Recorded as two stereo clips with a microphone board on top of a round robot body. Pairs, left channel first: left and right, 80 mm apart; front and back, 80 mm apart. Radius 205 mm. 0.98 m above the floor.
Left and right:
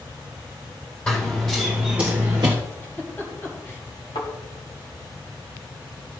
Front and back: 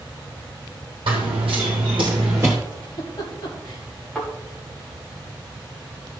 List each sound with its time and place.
1.1 s running footsteps: 170° left, 2.0 m; by 2.5 s 105° right, 1.1 m
2.7 s a giggle: 30° left, 4 m
4.2 s a thud: 80° left, 4 m